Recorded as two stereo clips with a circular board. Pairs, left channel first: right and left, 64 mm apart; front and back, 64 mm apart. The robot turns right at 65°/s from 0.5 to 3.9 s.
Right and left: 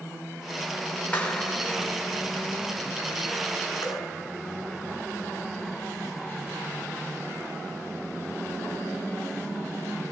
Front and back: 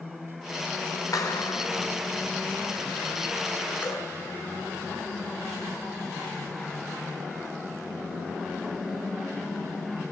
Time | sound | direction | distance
1.1 | a clap | 25° right | 4 m
3.8 | dripping | 65° right | 6.5 m